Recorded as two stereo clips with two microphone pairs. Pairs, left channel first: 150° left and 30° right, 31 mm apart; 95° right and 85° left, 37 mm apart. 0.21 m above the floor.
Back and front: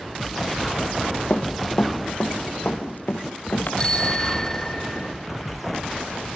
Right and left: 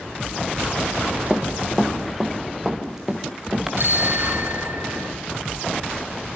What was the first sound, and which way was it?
Running footsteps, 165° left.